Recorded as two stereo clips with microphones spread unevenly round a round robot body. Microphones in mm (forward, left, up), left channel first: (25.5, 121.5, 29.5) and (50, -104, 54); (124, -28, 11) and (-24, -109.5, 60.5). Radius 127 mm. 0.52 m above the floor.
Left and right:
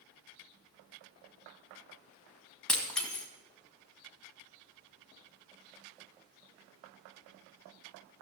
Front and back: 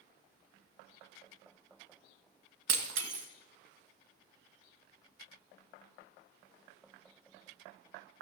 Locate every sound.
2.7 s breaking glass: 175° right, 1.5 m